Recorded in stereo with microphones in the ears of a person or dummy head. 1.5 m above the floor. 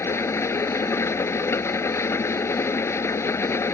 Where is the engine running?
15° left (ahead or behind).